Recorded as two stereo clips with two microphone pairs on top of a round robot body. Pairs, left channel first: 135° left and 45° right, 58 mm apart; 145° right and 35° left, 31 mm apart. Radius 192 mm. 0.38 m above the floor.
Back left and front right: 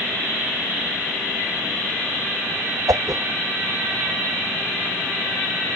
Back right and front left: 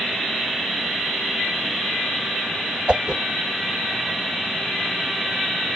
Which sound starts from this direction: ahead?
A whoosh, at 2.9 s.